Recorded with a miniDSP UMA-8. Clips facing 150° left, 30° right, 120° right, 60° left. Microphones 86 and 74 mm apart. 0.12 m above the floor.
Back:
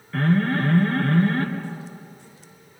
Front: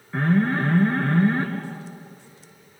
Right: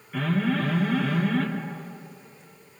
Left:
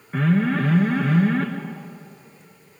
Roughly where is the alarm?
Ahead left.